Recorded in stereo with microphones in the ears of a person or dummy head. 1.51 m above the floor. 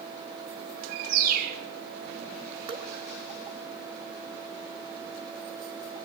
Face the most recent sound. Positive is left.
turn(degrees=-30)  # may be behind; listen again after turning